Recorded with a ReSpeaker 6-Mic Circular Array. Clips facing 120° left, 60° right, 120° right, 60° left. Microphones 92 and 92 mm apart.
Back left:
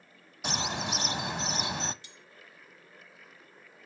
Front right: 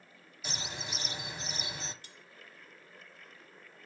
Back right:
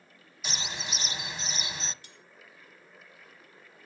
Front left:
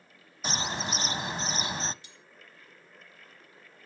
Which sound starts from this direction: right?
Cutlery clinking, at 2.0 s.